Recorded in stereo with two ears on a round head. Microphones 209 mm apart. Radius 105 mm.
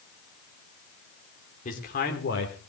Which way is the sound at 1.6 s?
35° left (ahead or behind).